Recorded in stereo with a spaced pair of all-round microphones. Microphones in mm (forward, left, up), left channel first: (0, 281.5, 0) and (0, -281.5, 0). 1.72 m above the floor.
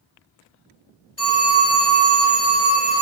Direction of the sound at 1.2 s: 10° left (ahead or behind).